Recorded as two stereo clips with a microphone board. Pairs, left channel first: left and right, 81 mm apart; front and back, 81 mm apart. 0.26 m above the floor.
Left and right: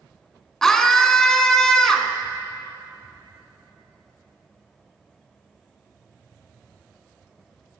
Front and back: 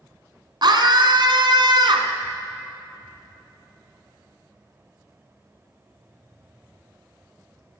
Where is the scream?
170° left, 2.5 m.